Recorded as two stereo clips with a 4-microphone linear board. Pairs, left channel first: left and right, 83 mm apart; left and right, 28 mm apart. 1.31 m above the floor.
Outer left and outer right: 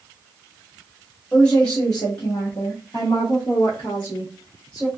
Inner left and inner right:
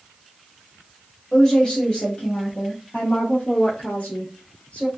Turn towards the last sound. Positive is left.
turn(degrees=60)  # may be behind; listen again after turning